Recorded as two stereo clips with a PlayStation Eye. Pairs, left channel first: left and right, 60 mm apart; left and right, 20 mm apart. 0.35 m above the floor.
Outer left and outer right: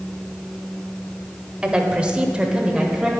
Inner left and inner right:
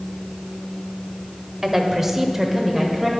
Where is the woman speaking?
15° right (ahead or behind), 1.1 m; by 3.1 s 10° right (ahead or behind), 1.2 m.